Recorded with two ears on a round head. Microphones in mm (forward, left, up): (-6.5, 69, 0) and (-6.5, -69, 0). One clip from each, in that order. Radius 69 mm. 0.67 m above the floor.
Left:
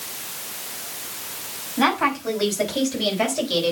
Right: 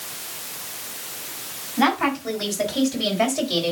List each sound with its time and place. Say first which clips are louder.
1.8 s a woman speaking: even; 5° left (ahead or behind), 4.5 m; by 3.7 s centre (ahead or behind), 3 m